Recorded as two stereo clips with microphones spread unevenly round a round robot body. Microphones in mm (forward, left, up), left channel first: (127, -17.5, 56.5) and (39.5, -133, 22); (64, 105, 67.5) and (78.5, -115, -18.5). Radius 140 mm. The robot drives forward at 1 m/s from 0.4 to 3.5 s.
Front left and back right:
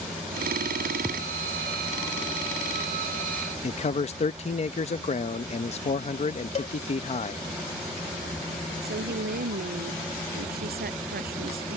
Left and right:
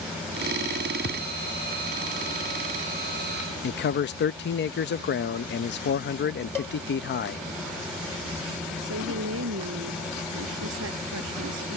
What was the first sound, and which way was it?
A thud, 140° left.